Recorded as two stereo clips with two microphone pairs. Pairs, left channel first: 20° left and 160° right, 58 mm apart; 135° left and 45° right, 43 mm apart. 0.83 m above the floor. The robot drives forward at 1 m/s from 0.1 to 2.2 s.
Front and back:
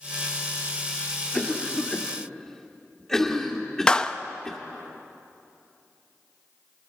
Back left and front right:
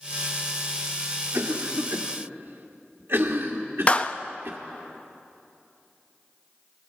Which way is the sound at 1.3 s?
45° right.